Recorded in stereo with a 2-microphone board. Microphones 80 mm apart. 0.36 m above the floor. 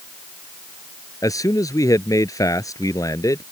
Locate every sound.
1.2 s a man speaking: 45° left (ahead or behind)